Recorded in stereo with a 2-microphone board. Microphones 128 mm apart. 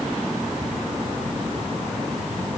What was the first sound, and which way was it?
Only background noise.